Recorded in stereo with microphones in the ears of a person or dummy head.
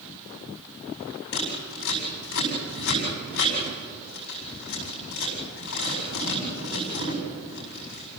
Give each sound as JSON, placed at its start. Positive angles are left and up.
{"t": 1.3, "sound": "scissors", "side_deg": 65, "distance_m": 7.5}